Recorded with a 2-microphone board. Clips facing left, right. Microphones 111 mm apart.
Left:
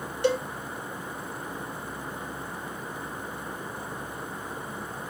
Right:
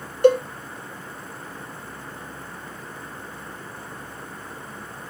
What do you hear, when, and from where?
0.2 s a cowbell: 50° right (ahead or behind), 0.7 m